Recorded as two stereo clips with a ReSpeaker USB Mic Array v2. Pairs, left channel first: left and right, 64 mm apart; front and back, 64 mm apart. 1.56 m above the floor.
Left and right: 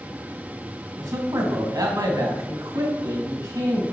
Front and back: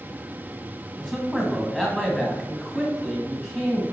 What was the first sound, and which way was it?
A man speaking, 75° right.